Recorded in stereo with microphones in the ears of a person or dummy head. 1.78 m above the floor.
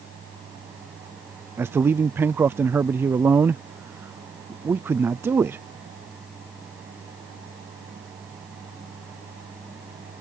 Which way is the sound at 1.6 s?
10° right (ahead or behind).